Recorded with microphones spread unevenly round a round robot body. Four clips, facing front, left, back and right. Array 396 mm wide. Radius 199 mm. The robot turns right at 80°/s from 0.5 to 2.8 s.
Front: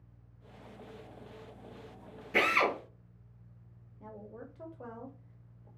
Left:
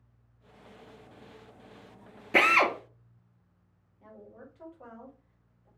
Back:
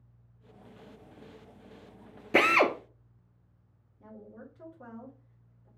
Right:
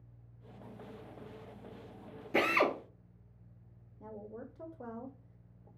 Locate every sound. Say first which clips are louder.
2.3 s a drill: left 5 dB, back 5 dB; 155° left, 0.6 m; by 2.7 s 175° right, 0.6 m
4.0 s a woman speaking: right 4 dB, front 1 dB; 80° right, 1.2 m